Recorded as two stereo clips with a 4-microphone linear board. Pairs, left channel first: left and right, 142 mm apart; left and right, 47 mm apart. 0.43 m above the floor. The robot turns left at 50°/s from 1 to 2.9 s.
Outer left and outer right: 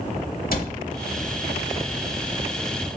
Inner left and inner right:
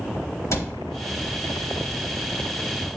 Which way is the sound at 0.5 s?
80° left.